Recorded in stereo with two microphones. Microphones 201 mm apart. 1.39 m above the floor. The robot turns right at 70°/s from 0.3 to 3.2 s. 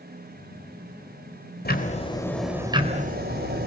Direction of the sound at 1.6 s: 125° left.